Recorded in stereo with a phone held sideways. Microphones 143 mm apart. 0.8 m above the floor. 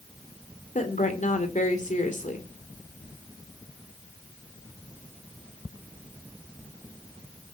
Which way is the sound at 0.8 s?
60° left (ahead or behind).